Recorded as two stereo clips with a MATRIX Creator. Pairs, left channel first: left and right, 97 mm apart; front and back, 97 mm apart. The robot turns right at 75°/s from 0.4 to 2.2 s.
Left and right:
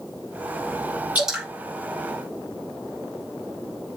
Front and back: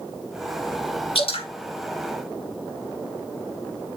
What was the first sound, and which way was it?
Dripping, 15° right.